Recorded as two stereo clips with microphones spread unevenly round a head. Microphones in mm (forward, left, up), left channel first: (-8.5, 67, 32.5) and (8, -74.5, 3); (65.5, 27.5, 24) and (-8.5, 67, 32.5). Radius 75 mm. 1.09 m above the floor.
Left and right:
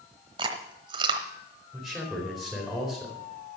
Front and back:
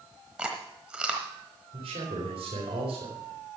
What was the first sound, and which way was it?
Chewing, 140° right.